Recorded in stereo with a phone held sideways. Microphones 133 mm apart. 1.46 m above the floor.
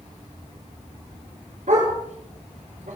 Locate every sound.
1.7 s a dog barking: 70° right (ahead or behind), 7.5 m; by 3.0 s 75° right (ahead or behind), 8 m